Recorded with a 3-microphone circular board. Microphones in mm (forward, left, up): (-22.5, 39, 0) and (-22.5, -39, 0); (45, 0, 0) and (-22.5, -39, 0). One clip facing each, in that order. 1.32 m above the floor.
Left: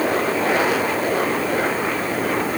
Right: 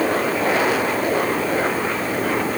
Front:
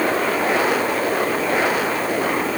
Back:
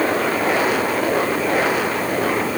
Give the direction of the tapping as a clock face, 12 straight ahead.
No tapping in this recording.